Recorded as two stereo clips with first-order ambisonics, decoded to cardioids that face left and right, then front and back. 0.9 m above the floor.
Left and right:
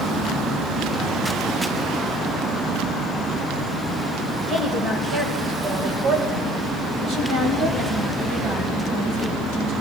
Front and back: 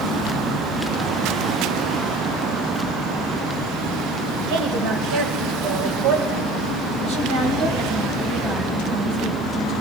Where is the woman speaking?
170° right, 3 m; by 9.7 s 115° right, 6 m.